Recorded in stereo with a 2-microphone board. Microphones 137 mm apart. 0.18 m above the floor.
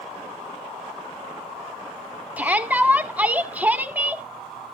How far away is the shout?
About 1.0 m.